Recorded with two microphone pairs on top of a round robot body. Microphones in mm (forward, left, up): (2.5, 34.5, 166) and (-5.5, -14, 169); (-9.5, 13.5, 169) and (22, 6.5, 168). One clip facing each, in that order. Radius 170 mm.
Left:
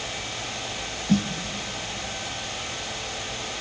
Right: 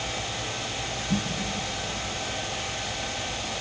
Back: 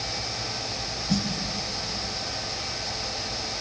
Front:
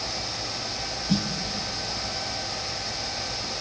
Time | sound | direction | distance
1.1 | a snare drum | 60° left | 1.9 m